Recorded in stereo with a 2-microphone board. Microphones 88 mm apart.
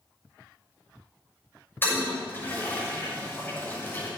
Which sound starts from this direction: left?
A toilet flushing, at 1.8 s.